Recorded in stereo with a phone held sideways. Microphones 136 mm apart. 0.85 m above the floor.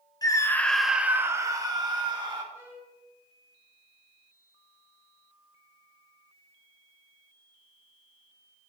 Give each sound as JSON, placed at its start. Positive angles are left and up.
{"t": 0.2, "sound": "a scream", "side_deg": 30, "distance_m": 0.5}
{"t": 2.5, "sound": "a violin", "side_deg": -20, "distance_m": 1.8}